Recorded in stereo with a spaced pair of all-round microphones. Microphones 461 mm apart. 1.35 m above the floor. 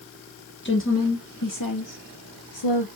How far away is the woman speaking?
About 1.3 m.